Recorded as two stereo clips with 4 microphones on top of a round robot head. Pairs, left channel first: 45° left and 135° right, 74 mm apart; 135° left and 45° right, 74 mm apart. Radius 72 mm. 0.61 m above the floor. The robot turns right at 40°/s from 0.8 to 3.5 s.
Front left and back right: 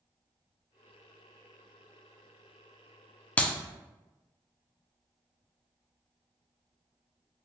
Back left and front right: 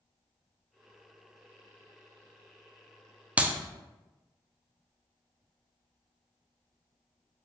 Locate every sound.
3.4 s a clap: straight ahead, 0.5 m; by 3.5 s 5° left, 0.5 m